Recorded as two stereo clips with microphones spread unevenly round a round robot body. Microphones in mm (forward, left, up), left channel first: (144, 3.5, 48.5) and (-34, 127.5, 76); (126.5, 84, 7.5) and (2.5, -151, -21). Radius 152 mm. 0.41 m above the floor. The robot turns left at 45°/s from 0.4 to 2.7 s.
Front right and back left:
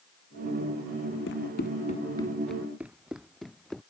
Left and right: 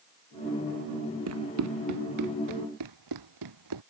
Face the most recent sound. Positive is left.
turn(degrees=-125)